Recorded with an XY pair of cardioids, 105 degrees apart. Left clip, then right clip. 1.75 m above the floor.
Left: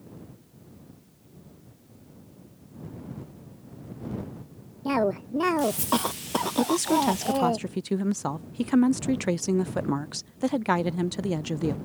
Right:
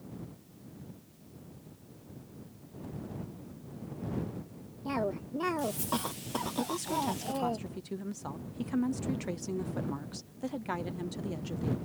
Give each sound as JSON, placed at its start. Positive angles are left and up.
{"t": 4.8, "sound": "a cough", "azimuth_deg": 50}
{"t": 6.6, "sound": "a woman speaking", "azimuth_deg": 70}